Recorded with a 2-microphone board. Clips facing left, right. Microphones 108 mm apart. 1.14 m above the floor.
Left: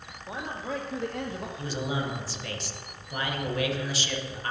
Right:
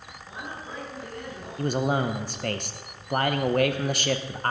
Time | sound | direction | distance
0.3 | a man speaking | 85° left | 2.0 m
1.6 | a man speaking | 50° right (ahead or behind) | 0.9 m